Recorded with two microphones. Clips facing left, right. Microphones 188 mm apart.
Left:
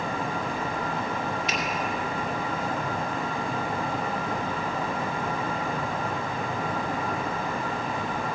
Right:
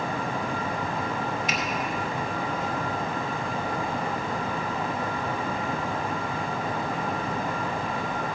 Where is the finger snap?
50° right (ahead or behind), 2.5 m.